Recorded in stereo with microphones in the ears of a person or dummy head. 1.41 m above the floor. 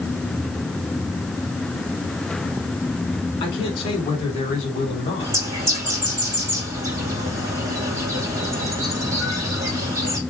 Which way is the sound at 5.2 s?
15° right (ahead or behind).